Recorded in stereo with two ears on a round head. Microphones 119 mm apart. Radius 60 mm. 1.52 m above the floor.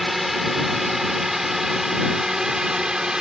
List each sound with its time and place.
0.0 s a drone: centre (ahead or behind); by 3.2 s 5° right (ahead or behind)